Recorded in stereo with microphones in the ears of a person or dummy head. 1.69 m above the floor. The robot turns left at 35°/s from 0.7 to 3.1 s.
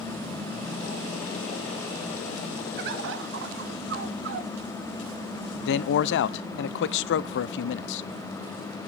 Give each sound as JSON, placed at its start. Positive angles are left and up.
{"t": 2.8, "sound": "a bird", "side_deg": -55, "distance_m": 0.9}
{"t": 5.6, "sound": "a man speaking", "side_deg": 65, "distance_m": 0.6}